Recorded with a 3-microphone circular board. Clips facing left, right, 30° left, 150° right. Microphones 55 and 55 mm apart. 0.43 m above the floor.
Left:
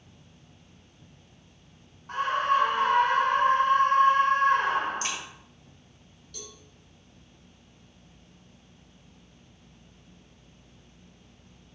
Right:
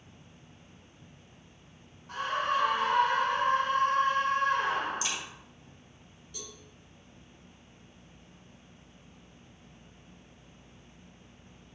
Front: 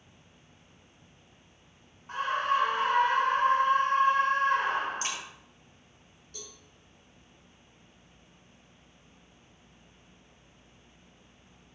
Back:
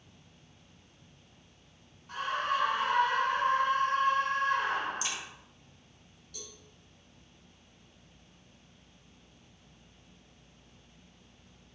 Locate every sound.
2.1 s a scream: 75° left, 1.5 m
5.0 s a crack: 65° left, 1.6 m
6.3 s a cowbell: 20° right, 2.5 m